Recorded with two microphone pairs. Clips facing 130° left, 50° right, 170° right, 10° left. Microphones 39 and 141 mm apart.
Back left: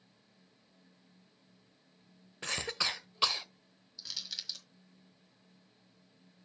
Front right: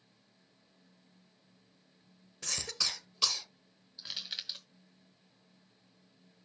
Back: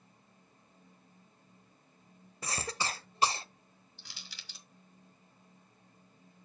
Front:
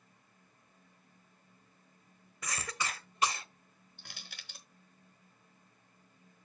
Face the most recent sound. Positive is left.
turn(degrees=5)